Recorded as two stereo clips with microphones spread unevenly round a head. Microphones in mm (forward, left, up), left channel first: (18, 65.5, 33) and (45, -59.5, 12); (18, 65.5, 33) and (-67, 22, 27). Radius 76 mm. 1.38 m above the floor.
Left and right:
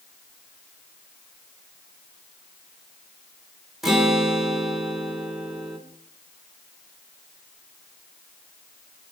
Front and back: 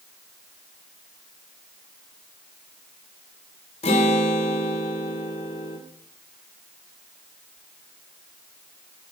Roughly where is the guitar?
Ahead.